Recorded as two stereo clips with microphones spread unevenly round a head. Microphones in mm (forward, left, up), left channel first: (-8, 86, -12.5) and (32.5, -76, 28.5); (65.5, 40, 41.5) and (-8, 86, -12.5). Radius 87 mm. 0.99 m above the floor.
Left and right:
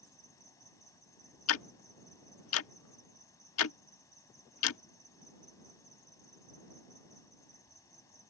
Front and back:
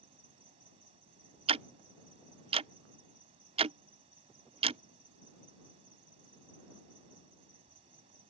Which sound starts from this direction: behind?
An insect, at 0.0 s.